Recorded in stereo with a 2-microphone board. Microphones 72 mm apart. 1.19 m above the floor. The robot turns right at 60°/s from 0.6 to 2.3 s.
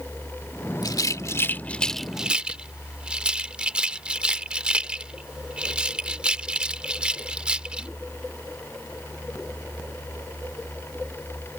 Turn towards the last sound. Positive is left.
turn(degrees=-15)  # may be behind; listen again after turning